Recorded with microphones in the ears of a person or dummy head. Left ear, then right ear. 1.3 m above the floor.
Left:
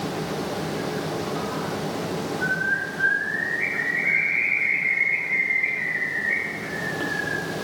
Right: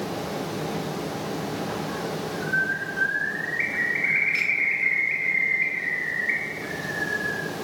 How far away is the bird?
About 5.5 m.